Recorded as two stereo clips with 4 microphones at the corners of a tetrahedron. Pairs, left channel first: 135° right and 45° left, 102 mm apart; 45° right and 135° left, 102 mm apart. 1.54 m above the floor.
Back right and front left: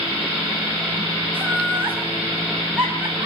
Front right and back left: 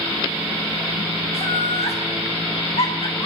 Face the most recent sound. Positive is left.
turn(degrees=-30)